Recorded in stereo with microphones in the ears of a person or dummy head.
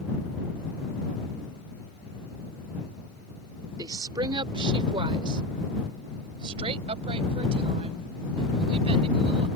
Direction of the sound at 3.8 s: 20° right (ahead or behind).